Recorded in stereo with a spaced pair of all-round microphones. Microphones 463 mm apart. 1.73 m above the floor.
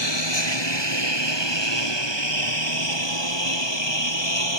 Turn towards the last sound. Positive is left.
turn(degrees=80)